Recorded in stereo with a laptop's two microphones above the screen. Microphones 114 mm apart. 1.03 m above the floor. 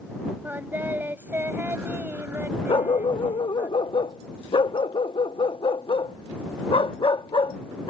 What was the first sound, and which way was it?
Singing, 20° right (ahead or behind).